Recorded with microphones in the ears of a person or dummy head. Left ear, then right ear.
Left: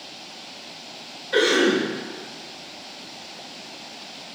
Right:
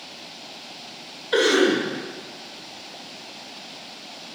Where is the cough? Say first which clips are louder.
Even; 90° right, 1.2 m.